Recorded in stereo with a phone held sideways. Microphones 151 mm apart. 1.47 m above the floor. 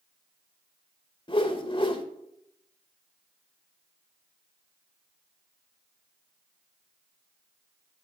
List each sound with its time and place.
1.3 s a whoosh: 35° left (ahead or behind), 1.3 m